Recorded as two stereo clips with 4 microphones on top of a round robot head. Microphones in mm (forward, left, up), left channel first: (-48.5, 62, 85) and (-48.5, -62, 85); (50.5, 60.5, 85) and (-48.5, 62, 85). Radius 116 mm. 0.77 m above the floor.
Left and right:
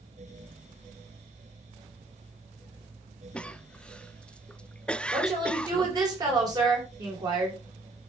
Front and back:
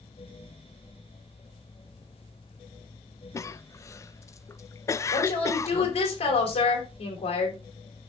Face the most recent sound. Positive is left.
turn(degrees=-30)